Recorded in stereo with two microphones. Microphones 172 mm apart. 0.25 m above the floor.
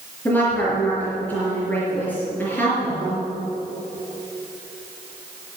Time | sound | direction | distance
0.2 | a woman speaking | 10° left (ahead or behind) | 4.5 m